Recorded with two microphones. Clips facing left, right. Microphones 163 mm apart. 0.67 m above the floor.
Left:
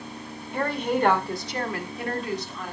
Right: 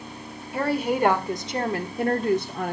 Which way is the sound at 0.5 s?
5° right (ahead or behind).